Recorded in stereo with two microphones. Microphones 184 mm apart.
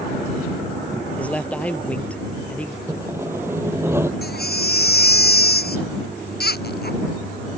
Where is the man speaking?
5° left (ahead or behind).